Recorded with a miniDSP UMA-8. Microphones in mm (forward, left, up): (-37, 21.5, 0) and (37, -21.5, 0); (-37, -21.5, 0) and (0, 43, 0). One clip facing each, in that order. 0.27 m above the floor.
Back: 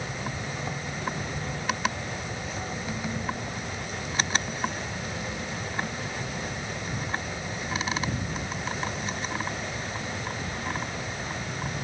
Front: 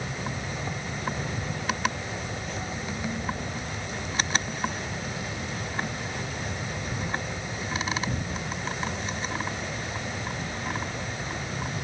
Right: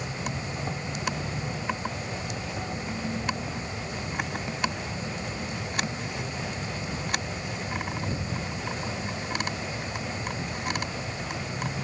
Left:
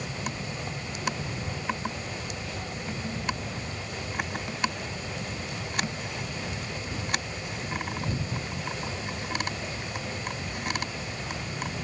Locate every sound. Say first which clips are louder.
0.0 s an insect: even, right 1 dB; 130° right